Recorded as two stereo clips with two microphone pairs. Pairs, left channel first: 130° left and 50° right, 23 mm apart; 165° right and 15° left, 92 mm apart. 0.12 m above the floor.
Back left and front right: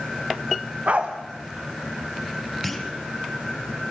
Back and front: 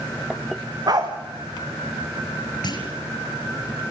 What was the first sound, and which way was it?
A dog barking, 30° right.